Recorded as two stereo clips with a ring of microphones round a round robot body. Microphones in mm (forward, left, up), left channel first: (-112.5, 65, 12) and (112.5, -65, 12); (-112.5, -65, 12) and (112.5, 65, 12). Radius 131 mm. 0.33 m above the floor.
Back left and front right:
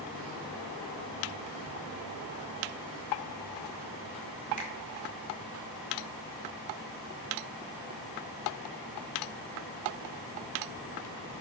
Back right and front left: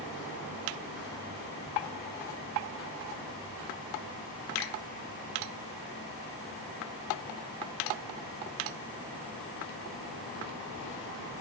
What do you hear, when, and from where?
4.6 s a finger snap: 150° right, 1.9 m